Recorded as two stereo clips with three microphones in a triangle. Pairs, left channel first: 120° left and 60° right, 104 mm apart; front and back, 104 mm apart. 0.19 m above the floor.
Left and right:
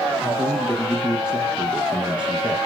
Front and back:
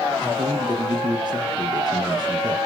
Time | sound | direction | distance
0.2 | a man speaking | 140° right | 2.5 m